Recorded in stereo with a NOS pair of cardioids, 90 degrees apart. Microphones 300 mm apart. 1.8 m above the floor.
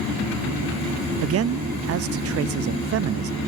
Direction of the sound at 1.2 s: 55° right.